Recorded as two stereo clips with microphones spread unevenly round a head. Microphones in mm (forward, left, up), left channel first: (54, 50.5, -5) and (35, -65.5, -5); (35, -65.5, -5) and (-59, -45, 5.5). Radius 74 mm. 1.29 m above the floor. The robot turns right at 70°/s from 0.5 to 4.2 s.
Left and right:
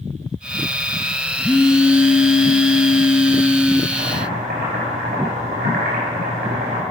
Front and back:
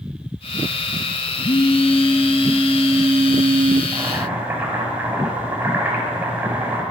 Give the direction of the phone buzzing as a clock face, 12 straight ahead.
12 o'clock.